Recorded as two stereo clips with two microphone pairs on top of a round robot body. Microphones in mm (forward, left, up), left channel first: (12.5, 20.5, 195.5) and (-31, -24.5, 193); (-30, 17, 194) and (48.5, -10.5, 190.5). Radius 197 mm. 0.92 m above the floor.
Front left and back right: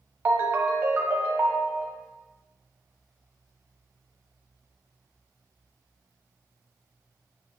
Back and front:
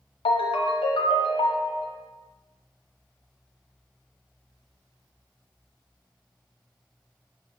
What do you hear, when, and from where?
0.2 s a ringtone: 165° left, 0.8 m